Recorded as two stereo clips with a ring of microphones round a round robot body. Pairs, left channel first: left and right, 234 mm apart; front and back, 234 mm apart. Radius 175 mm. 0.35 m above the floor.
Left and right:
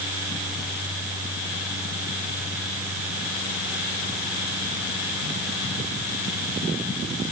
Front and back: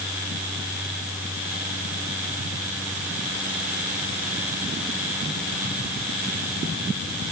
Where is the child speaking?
I don't hear a child speaking.